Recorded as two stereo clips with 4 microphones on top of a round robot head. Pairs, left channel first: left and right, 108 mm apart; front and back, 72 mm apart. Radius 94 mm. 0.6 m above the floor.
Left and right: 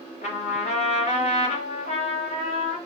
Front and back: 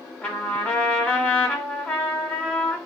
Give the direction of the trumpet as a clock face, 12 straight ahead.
9 o'clock.